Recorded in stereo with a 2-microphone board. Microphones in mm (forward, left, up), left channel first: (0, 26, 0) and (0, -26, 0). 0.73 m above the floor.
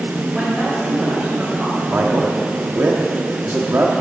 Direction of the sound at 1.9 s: 50° right (ahead or behind).